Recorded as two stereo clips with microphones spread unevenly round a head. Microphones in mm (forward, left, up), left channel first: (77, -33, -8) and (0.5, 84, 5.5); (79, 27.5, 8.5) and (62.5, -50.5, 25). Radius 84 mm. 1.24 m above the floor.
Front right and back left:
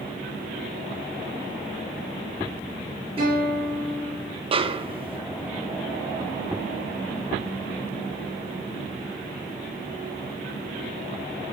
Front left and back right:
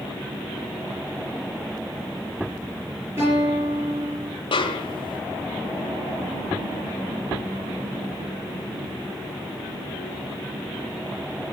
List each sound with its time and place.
3.2 s a guitar: 175° right, 5.5 m
4.5 s a snare drum: 70° left, 1.0 m